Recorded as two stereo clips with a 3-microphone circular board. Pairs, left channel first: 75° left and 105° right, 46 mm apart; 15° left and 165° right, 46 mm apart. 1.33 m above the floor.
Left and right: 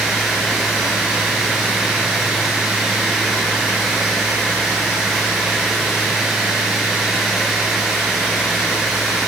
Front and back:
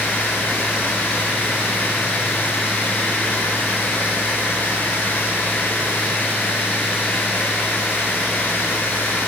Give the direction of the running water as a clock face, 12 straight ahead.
1 o'clock.